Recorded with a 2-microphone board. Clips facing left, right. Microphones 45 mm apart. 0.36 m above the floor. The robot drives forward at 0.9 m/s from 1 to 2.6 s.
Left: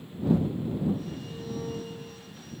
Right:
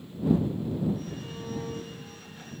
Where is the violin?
55° right (ahead or behind), 1.8 m; by 2.3 s 45° right (ahead or behind), 2 m.